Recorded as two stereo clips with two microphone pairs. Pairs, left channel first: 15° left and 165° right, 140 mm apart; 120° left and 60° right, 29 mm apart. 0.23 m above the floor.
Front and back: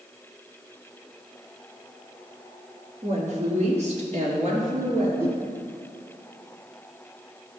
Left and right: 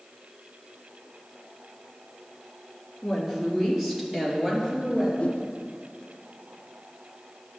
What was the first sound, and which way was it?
A woman speaking, 145° right.